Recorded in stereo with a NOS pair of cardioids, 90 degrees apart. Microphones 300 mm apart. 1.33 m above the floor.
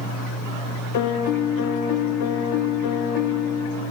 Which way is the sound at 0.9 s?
70° left.